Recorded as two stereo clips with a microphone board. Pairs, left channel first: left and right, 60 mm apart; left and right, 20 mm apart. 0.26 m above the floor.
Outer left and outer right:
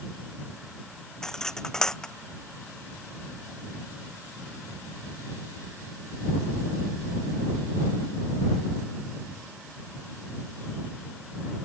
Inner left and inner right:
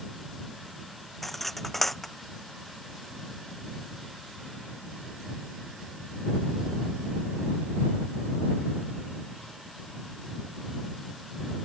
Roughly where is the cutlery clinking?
Centre.